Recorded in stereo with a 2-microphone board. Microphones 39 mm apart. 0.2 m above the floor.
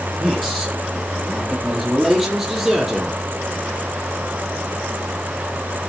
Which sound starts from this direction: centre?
A man speaking, at 0.2 s.